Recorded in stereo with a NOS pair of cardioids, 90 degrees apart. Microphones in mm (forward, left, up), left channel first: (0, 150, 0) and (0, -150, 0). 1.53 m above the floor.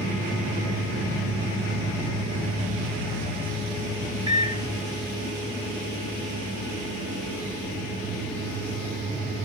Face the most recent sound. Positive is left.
turn(degrees=-15)